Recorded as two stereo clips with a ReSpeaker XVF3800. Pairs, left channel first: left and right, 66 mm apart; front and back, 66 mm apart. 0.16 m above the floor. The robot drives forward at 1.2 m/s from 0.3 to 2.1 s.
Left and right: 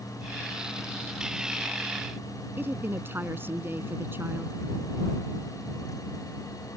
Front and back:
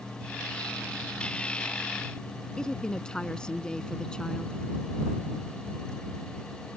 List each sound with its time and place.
2.6 s a woman speaking: 70° right